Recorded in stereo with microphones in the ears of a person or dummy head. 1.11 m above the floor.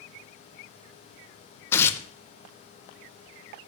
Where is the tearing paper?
10° left (ahead or behind), 0.7 m.